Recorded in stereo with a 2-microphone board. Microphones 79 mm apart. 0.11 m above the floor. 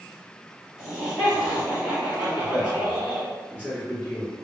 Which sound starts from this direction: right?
A man speaking, at 2.2 s.